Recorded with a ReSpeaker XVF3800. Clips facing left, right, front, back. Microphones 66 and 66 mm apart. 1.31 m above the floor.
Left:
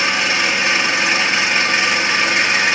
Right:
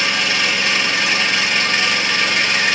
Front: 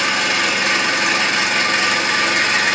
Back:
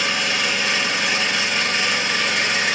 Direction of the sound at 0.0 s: 20° left.